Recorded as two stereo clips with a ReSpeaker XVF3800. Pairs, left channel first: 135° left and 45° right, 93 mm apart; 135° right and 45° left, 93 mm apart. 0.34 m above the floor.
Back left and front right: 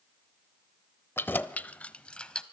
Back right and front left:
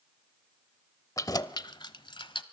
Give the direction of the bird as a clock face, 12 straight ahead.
No bird in this recording.